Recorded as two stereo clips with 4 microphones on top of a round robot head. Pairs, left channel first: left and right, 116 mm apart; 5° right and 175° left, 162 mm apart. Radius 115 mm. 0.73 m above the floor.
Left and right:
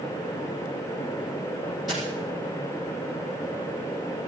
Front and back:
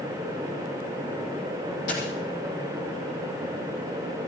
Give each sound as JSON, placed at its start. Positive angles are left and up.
{"t": 1.9, "sound": "a dropped coin", "azimuth_deg": 0, "distance_m": 8.5}